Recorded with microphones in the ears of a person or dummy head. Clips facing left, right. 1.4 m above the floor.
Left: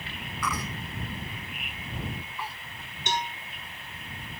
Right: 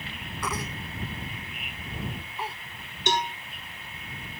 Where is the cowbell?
60° right (ahead or behind).